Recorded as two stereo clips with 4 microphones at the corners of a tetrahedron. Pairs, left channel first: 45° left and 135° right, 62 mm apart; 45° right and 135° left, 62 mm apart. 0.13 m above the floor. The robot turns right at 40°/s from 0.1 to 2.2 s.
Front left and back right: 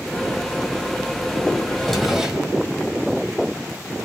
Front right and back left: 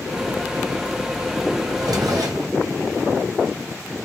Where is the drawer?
125° left, 1.8 m; by 2.5 s 145° left, 1.8 m.